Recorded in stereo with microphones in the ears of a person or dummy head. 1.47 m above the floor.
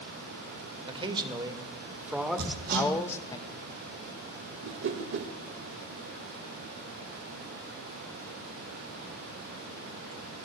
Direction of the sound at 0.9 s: 25° right (ahead or behind).